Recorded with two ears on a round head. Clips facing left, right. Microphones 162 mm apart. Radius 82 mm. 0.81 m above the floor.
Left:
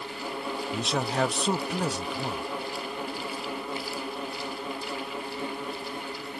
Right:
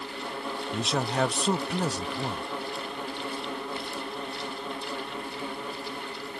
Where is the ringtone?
I don't hear a ringtone.